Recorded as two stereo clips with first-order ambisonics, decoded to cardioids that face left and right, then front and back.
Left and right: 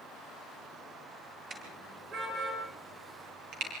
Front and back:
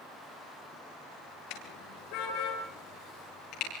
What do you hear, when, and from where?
1.5 s a car horn: 25° right, 7.5 m; by 3.7 s 45° right, 9 m